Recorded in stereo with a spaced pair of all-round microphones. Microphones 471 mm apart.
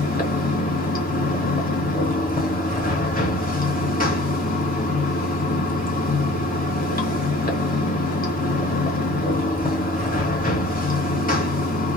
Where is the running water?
20° left (ahead or behind), 1.2 m.